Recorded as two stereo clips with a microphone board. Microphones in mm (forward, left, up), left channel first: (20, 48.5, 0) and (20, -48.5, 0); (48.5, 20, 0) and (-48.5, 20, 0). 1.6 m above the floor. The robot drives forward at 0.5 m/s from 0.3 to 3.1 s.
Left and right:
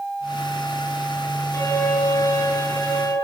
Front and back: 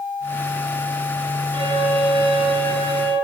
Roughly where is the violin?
Behind left.